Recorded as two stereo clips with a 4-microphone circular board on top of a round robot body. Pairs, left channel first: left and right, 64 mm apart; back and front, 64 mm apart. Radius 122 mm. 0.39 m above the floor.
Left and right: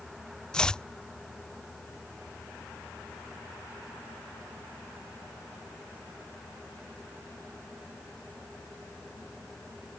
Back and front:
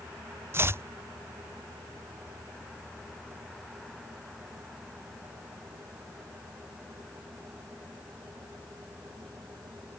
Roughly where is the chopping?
Ahead.